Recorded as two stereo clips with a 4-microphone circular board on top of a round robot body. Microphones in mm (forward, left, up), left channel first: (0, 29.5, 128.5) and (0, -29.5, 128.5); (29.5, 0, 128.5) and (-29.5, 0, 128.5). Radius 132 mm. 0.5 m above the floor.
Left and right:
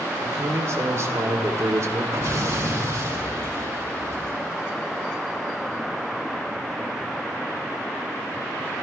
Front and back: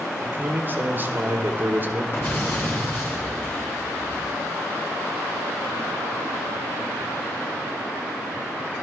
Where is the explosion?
50° right, 5.5 m.